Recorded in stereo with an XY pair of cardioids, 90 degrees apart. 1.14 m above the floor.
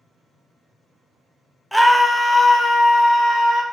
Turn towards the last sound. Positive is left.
turn(degrees=80)